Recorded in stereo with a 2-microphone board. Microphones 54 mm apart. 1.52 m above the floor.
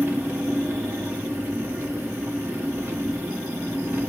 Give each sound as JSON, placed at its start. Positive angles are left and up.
{"t": 0.0, "sound": "an engine running", "side_deg": -40, "distance_m": 0.8}